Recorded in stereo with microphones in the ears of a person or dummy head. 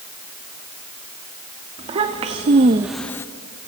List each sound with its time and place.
1.8 s a child speaking: 35° right (ahead or behind), 1.5 m; by 3.3 s 10° left (ahead or behind), 0.9 m